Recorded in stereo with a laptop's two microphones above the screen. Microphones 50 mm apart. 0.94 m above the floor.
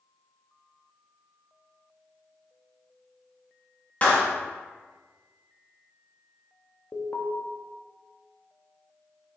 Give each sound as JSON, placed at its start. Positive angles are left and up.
{"t": 4.0, "sound": "a clap", "side_deg": 30, "distance_m": 1.2}
{"t": 6.9, "sound": "an alarm", "side_deg": 40, "distance_m": 1.2}